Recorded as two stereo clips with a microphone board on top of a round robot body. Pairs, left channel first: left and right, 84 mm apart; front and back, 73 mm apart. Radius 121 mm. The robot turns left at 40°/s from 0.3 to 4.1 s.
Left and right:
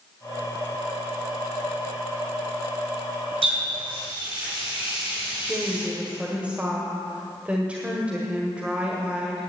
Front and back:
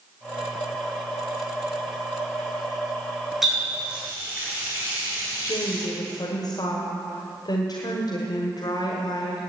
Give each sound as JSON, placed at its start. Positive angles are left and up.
{"t": 3.4, "sound": "a running tap", "azimuth_deg": -95, "distance_m": 5.5}
{"t": 5.5, "sound": "a woman speaking", "azimuth_deg": -15, "distance_m": 1.6}